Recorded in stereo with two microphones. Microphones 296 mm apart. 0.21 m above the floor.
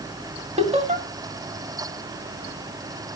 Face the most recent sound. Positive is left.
turn(degrees=-20)  # may be behind; listen again after turning